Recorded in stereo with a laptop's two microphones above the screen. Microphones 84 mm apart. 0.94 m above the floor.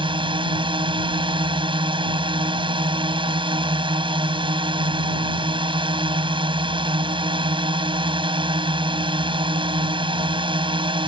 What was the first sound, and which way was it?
A drone, 75° right (ahead or behind).